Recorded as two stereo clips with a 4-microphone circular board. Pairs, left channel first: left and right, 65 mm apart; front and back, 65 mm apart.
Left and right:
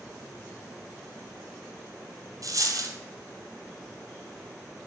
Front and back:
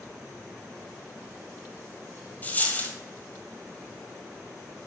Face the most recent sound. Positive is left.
turn(degrees=-65)